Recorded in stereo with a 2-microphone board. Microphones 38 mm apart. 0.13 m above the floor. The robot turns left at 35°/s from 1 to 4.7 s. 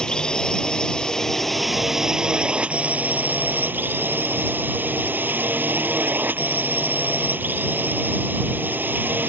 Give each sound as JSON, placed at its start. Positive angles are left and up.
{"t": 0.0, "sound": "a drone", "azimuth_deg": 20}